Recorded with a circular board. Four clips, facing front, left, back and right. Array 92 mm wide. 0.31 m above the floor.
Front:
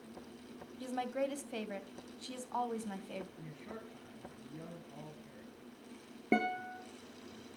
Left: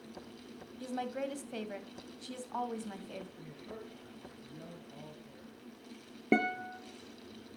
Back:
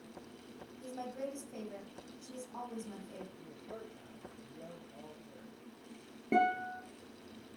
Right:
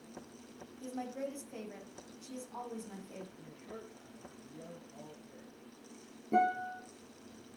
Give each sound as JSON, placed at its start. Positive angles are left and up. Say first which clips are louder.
{"t": 0.8, "sound": "a woman speaking", "louder": "left 3 dB, front 5 dB", "azimuth_deg": 35, "distance_m": 1.8}
{"t": 3.4, "sound": "a man speaking", "louder": "left 2 dB, even", "azimuth_deg": 10, "distance_m": 5.5}
{"t": 6.3, "sound": "a guitar", "louder": "right 1 dB, back 3 dB", "azimuth_deg": 70, "distance_m": 2.5}